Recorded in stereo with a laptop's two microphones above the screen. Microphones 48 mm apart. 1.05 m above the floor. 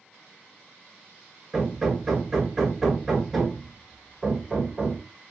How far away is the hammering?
About 2.0 m.